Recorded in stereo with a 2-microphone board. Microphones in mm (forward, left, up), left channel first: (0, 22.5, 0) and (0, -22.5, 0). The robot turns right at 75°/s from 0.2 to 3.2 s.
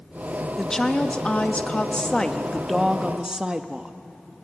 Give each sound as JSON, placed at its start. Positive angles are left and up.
{"t": 0.6, "sound": "a woman speaking", "side_deg": 10, "distance_m": 1.1}